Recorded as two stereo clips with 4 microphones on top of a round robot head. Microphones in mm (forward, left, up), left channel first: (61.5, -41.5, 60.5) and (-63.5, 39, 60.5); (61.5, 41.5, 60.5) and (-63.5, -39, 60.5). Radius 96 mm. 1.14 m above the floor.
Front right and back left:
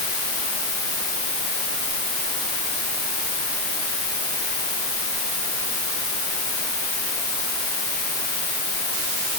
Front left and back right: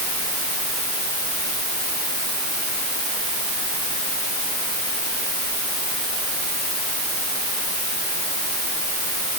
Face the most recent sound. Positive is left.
No sound to turn to.